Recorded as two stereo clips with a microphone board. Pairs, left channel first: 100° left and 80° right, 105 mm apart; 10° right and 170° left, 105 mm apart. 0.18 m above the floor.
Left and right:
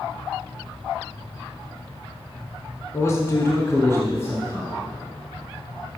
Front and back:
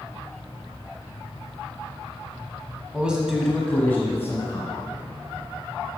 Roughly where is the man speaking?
Left.